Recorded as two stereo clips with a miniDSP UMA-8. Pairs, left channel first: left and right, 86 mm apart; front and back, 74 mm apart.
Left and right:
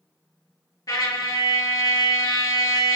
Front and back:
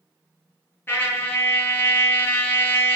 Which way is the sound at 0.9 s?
55° left.